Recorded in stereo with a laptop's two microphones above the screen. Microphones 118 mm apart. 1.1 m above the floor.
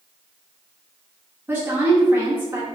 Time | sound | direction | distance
1.5 | a woman speaking | 20° right (ahead or behind) | 1.3 m